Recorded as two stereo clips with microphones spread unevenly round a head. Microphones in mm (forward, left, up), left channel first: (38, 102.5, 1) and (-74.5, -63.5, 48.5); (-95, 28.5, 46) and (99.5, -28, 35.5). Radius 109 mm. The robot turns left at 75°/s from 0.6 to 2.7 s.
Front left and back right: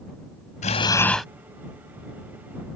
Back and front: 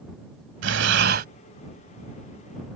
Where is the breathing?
5° right; by 1.3 s 55° right.